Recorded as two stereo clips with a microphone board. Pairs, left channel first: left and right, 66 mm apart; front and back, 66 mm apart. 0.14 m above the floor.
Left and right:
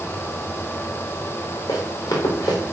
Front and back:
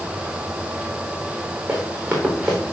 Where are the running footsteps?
115° left, 4 m.